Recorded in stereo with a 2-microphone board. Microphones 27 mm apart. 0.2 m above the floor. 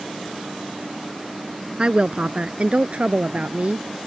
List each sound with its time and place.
1.8 s a woman speaking: 40° right (ahead or behind); by 3.9 s 60° right (ahead or behind)